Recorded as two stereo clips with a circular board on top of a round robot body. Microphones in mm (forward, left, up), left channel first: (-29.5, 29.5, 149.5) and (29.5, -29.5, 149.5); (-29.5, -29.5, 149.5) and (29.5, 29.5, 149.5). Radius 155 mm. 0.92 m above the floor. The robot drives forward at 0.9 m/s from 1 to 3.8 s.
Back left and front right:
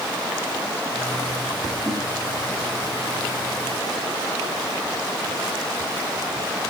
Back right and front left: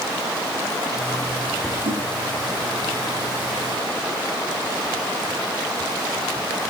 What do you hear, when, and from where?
1.9 s a whoosh: 30° left, 4 m; by 2.1 s 35° left, 4 m